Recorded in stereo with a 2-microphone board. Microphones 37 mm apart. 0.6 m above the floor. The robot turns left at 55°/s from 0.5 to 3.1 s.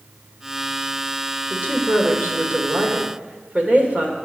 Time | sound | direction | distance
1.5 | a woman speaking | 40° right | 2.5 m